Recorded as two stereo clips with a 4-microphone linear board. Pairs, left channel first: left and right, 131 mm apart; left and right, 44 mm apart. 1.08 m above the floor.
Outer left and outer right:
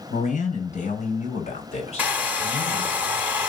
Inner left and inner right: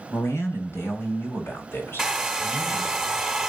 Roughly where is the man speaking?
Left.